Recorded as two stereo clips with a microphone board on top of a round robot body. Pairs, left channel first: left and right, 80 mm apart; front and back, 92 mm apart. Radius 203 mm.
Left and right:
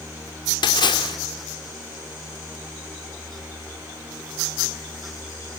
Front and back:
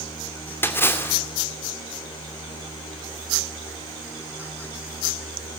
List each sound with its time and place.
0.6 s a splash: 65° left, 2.5 m